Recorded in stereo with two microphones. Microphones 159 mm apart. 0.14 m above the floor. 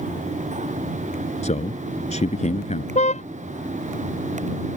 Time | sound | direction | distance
1.4 | a man speaking | 50° left (ahead or behind) | ?
3.0 | a car horn | 45° left (ahead or behind) | ?